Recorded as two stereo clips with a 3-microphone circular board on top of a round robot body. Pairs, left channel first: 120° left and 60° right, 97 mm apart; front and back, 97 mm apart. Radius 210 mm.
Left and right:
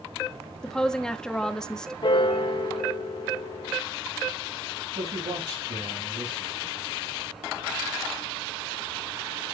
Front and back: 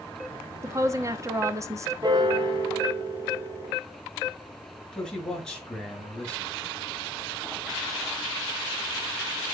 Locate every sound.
0.6 s a woman speaking: 165° right, 1.5 m
2.0 s a piano: 145° left, 1.9 m
4.9 s a man speaking: 80° right, 6.5 m